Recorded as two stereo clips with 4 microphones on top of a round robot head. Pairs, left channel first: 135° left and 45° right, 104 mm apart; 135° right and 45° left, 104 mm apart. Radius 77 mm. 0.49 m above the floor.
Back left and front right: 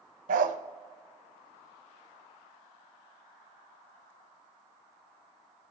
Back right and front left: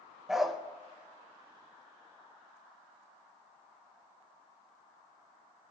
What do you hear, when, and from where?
0.3 s a dog barking: 40° right, 0.5 m